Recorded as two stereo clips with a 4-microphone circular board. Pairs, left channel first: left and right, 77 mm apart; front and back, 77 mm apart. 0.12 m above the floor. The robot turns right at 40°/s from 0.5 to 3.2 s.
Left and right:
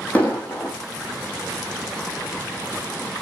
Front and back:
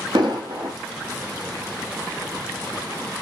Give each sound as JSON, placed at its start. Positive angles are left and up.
{"t": 0.1, "sound": "an explosion", "azimuth_deg": 165, "distance_m": 1.2}